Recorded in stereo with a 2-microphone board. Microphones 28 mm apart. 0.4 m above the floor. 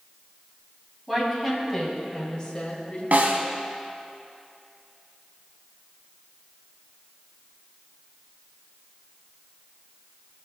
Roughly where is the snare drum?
Right.